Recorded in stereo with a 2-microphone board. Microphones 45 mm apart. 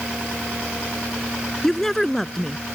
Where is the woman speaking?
10° left (ahead or behind).